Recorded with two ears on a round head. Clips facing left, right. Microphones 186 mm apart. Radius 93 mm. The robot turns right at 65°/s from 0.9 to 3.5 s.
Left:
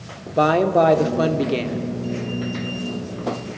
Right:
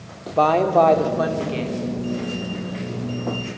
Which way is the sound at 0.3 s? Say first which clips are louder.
Even; 15° left.